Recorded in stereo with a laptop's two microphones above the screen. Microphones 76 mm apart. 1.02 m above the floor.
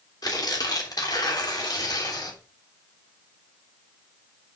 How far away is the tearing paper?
About 3 m.